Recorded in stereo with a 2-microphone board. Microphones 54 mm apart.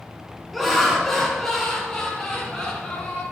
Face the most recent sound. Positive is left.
turn(degrees=20)  # may be behind; listen again after turning